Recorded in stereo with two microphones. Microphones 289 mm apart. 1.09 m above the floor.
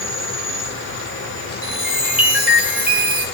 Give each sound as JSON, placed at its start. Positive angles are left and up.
{"t": 0.0, "sound": "an insect", "side_deg": 45, "distance_m": 1.0}
{"t": 1.6, "sound": "a chime", "side_deg": -5, "distance_m": 1.1}